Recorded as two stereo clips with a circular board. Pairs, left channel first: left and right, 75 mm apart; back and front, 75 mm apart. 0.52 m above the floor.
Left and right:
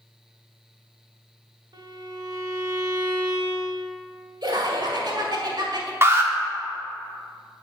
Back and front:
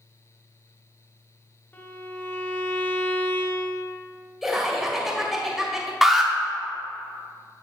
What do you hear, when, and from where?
1.7 s a violin: 115° right, 0.8 m
4.4 s laughter: 85° right, 2.0 m
6.0 s an alarm: 80° right, 1.0 m